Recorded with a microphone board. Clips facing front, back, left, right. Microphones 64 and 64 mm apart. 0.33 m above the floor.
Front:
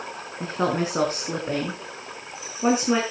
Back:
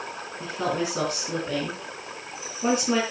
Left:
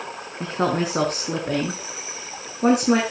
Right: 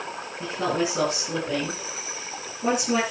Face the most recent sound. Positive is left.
turn(degrees=70)